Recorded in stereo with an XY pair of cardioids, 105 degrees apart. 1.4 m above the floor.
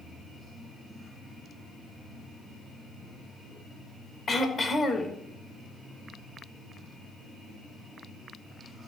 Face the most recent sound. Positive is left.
turn(degrees=40)